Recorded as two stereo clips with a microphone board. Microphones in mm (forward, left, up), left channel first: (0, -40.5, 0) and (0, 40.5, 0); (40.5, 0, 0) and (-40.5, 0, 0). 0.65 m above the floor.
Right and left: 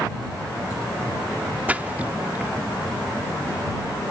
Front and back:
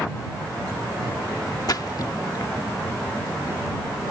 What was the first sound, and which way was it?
A splash, 25° left.